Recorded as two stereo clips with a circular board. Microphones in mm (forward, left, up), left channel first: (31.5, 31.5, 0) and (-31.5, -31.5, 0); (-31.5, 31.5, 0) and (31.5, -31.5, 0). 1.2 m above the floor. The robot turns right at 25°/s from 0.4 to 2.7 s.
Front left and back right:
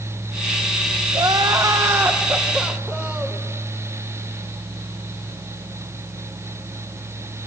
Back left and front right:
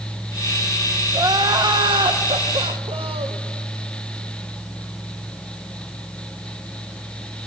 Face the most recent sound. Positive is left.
turn(degrees=-55)